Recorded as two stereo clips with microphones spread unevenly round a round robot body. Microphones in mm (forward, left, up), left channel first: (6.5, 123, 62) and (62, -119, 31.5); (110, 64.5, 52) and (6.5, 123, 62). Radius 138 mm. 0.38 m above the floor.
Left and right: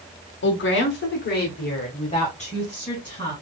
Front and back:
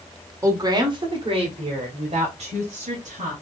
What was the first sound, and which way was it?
A woman speaking, 95° left.